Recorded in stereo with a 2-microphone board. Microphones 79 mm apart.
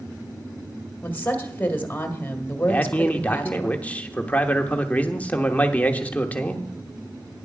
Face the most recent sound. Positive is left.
turn(degrees=20)  # may be behind; listen again after turning